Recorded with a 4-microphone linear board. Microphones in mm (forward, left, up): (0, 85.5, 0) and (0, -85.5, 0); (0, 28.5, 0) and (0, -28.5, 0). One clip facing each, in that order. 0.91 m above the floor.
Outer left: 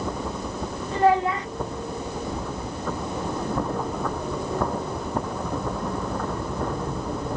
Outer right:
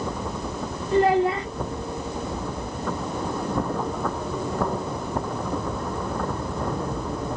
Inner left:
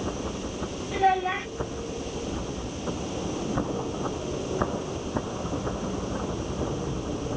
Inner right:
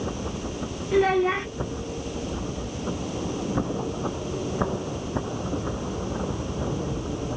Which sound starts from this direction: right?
A child speaking, at 0.9 s.